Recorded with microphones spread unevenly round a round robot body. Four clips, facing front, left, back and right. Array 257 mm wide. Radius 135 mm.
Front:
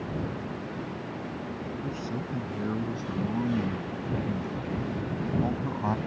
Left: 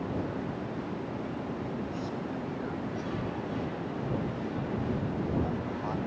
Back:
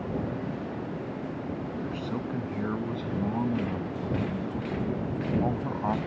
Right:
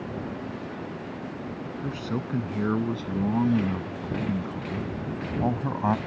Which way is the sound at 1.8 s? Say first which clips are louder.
Right 4 dB, back 1 dB; 85° right.